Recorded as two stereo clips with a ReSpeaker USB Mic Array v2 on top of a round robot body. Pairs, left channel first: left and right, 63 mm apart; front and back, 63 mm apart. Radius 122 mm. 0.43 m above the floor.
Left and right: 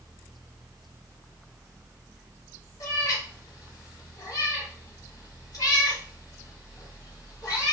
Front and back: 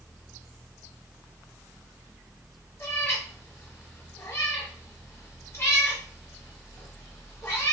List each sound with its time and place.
2.8 s a cat meowing: 55° left, 1.0 m